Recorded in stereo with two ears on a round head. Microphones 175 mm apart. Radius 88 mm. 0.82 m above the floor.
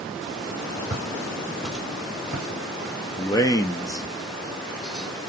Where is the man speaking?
15° left (ahead or behind), 0.6 m.